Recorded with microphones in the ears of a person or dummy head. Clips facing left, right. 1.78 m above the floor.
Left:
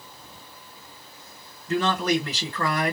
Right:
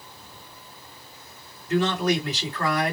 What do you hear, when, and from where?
1.7 s a man speaking: 60° left (ahead or behind), 1.6 m